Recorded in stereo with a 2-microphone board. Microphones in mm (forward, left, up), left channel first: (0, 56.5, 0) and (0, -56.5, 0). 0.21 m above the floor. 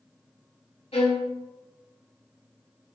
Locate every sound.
0.9 s a violin: 65° left (ahead or behind), 0.7 m